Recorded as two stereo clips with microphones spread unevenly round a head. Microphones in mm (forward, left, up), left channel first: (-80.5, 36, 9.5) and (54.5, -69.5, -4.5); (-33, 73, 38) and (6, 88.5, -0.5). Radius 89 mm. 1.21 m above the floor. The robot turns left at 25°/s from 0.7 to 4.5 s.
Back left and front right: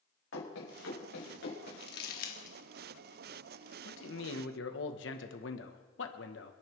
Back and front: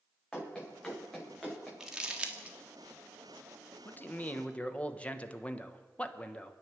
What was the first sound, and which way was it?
Running footsteps, 135° left.